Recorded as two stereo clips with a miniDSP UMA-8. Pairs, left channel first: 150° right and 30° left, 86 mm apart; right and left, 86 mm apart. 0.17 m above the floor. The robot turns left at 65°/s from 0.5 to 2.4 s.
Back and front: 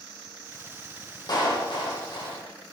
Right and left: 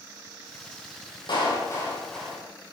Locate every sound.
1.3 s a clap: 115° right, 6 m; by 2.4 s 175° left, 6 m